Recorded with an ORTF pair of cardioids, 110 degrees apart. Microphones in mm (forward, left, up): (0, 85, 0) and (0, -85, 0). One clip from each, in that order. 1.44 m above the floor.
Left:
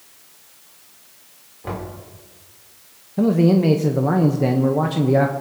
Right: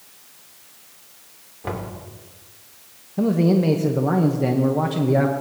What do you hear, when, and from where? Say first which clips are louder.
1.6 s knocking: even; 15° right, 3 m
3.2 s a man speaking: left 3 dB; 15° left, 1.0 m